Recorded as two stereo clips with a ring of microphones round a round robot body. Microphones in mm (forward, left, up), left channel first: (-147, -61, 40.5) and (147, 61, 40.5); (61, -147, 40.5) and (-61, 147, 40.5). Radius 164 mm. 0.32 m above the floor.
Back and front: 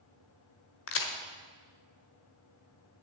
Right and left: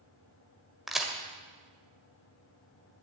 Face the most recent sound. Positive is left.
turn(degrees=-160)